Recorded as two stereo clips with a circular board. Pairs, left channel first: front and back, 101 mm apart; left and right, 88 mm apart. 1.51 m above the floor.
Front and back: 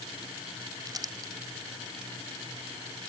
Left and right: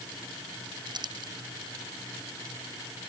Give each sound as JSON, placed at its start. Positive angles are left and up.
{"t": 0.9, "sound": "crumpling", "azimuth_deg": -125}